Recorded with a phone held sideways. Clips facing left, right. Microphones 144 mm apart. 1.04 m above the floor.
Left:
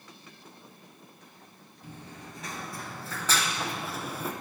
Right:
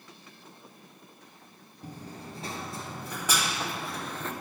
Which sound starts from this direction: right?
Running footsteps, at 1.8 s.